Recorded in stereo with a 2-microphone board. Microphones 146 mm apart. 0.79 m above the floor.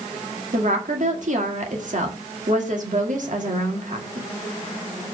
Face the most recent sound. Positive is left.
turn(degrees=-60)  # may be behind; listen again after turning